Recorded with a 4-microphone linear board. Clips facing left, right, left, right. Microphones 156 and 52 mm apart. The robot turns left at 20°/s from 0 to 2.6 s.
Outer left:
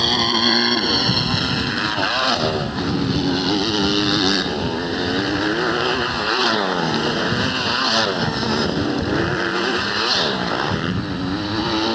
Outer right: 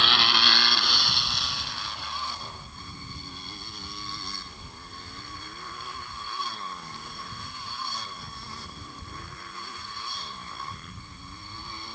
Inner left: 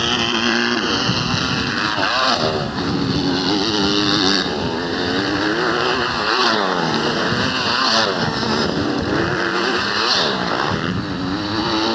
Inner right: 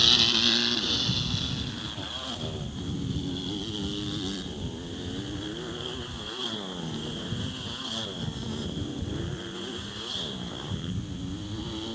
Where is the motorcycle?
140° left; by 11.9 s 90° left.